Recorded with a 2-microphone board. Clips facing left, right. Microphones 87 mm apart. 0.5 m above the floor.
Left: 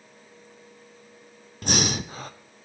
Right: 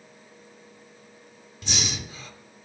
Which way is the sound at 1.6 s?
55° left (ahead or behind).